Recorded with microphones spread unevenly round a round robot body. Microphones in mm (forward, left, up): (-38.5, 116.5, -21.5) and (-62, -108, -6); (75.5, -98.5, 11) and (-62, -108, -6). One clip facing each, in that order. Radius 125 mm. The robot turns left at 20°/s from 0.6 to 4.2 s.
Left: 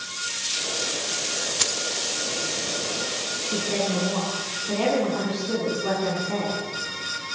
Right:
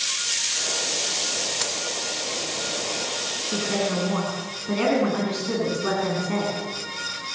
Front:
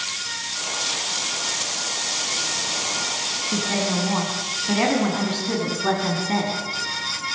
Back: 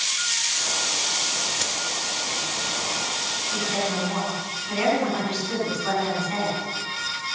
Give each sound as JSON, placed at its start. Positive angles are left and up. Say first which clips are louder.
{"t": 1.6, "sound": "keys jangling", "louder": "even, back 1 dB", "azimuth_deg": 130, "distance_m": 1.3}
{"t": 3.5, "sound": "a woman speaking", "louder": "right 1 dB, front 3 dB", "azimuth_deg": -10, "distance_m": 7.5}